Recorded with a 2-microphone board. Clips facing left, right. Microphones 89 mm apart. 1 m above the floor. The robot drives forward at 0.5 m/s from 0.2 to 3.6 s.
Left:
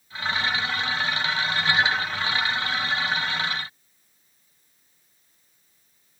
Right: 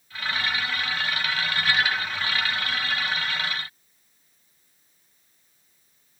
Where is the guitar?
No guitar in this recording.